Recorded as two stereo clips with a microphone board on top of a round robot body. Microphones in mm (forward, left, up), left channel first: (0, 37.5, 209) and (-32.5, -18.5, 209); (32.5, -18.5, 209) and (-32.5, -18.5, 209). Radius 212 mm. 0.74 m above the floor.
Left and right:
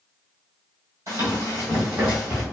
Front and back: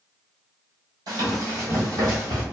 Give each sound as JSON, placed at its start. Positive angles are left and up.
{"t": 1.1, "sound": "running footsteps", "azimuth_deg": -160, "distance_m": 1.3}